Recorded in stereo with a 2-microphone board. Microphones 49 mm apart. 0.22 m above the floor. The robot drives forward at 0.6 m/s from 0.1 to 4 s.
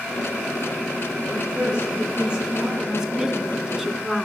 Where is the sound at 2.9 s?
15° right (ahead or behind), 1.8 m; by 4.3 s 10° right (ahead or behind), 2.5 m.